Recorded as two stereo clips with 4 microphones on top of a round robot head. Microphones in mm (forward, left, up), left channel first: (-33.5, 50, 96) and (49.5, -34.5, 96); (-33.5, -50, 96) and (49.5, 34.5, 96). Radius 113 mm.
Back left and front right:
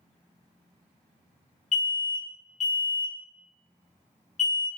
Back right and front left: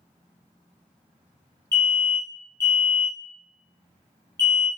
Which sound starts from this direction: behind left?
An alarm, at 1.7 s.